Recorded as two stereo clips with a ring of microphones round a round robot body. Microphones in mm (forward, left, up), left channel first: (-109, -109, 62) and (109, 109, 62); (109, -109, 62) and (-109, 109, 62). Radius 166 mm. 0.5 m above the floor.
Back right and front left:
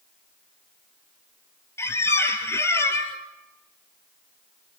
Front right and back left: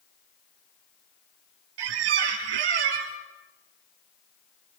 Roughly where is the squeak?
Behind left.